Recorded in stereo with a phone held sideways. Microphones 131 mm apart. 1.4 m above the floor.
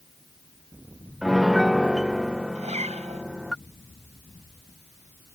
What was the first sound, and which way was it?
A piano, centre (ahead or behind).